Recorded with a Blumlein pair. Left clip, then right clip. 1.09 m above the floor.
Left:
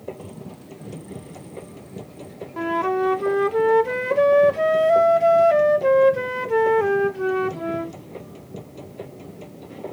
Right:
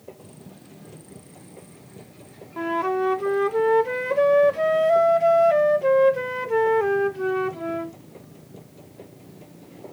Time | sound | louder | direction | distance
0.0 | a machine running | left 8 dB | 25° left | ?
2.6 | a flute | left 2 dB | 5° left | ?